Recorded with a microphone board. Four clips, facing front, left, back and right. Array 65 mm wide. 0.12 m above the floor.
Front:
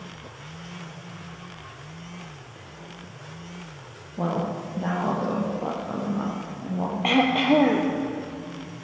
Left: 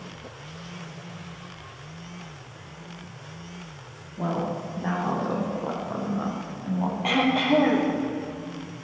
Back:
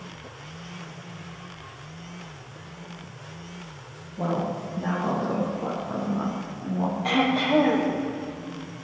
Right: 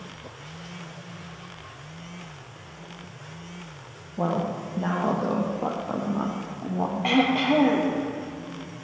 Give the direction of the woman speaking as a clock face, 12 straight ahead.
2 o'clock.